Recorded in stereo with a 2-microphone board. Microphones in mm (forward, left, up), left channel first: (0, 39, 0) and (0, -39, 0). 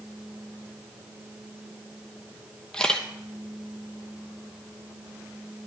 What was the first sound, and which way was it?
A camera shutter, 10° left (ahead or behind).